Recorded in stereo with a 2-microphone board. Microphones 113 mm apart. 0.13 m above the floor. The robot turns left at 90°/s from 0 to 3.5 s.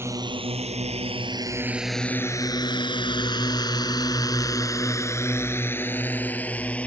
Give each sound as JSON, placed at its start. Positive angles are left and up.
{"t": 0.0, "sound": "a drone", "side_deg": -20}